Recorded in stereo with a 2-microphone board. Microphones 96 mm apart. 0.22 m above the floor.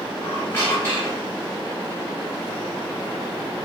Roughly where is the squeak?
Left.